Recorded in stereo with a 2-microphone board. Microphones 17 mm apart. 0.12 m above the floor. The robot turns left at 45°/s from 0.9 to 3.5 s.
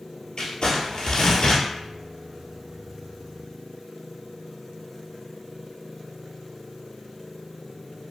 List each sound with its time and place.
0.4 s crumpling: 115° left, 1.3 m; by 1.6 s 80° left, 1.3 m